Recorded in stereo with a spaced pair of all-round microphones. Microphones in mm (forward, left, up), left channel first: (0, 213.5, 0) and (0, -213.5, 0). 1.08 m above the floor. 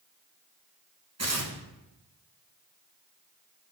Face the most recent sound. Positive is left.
turn(degrees=-35)  # may be behind; listen again after turning